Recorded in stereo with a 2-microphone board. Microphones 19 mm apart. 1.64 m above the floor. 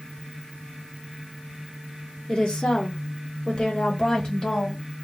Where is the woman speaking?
55° left (ahead or behind), 1.3 m; by 4.8 s 45° left (ahead or behind), 1.8 m.